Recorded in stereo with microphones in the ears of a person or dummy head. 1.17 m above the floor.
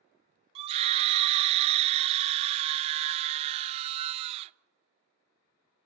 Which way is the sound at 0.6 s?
30° right (ahead or behind).